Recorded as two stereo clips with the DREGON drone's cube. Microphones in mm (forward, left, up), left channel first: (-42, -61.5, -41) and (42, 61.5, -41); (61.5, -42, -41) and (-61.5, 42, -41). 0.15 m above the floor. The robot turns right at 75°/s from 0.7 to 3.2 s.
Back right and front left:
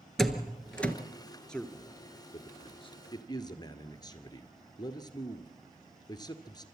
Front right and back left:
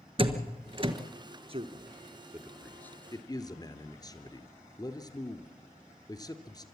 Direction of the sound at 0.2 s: 150° left.